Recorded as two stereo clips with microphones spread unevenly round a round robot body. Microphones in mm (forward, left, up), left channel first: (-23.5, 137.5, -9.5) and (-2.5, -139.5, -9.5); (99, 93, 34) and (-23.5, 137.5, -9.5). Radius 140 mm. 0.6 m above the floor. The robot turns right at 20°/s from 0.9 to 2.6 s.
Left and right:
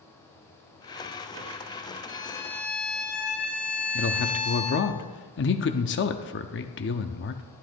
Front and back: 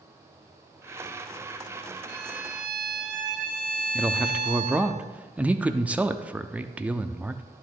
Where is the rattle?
No rattle in this recording.